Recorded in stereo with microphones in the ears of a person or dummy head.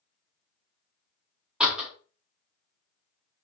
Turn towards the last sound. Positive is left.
turn(degrees=0)  # may be behind; listen again after turning